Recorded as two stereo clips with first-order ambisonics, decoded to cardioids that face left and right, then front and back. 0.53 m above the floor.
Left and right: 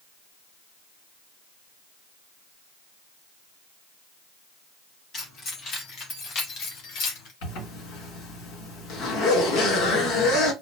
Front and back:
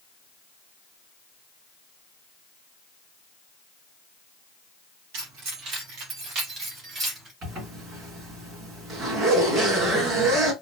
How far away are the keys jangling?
About 2.5 m.